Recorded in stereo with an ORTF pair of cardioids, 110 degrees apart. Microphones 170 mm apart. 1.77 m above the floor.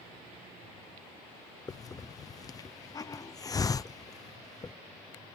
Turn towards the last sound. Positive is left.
turn(degrees=25)